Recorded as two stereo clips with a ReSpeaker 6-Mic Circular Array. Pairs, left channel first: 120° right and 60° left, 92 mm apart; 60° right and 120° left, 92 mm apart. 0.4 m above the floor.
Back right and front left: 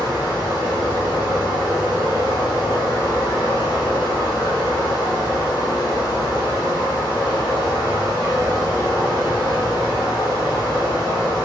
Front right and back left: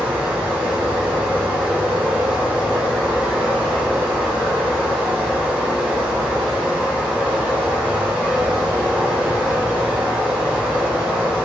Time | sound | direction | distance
0.0 | running water | 165° right | 1.5 m